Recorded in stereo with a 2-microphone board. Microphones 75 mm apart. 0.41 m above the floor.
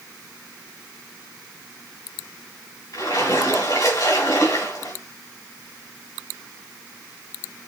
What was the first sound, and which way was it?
A splash, 65° left (ahead or behind).